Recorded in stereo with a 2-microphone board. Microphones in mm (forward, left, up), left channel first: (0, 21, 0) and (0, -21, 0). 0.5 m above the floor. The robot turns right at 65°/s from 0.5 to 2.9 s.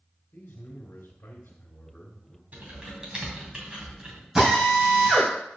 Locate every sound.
0.3 s a man speaking: 55° left, 1.9 m; by 2.4 s straight behind, 1.9 m
2.5 s typing on a keyboard: 40° right (ahead or behind), 2.5 m; by 4.2 s 15° right (ahead or behind), 2.5 m
4.3 s a drill: 15° right (ahead or behind), 3.5 m